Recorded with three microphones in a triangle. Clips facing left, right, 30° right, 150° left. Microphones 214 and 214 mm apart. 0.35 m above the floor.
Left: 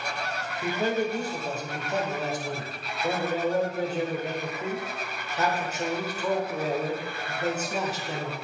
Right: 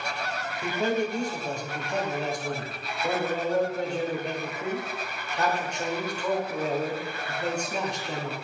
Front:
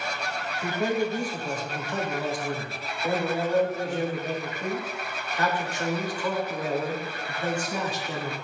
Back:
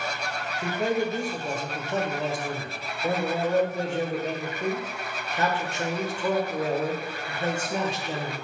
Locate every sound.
0.6 s a man speaking: 170° left, 1.3 m